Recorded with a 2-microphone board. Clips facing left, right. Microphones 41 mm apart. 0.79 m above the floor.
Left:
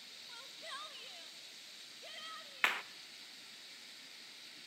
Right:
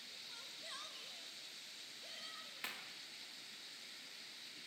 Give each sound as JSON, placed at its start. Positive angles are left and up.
{"t": 0.3, "sound": "a shout", "side_deg": 20, "distance_m": 1.4}
{"t": 2.6, "sound": "a clap", "side_deg": 60, "distance_m": 0.5}